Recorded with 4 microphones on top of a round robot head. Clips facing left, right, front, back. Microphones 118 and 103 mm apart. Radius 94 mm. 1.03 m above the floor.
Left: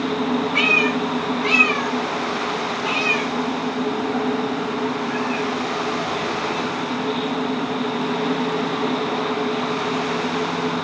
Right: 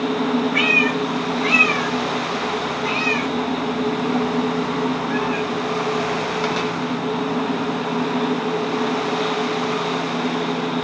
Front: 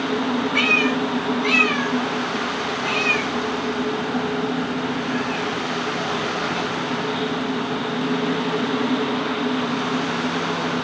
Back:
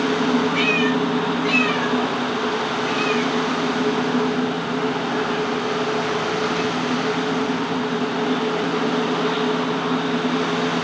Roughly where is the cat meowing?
Ahead left.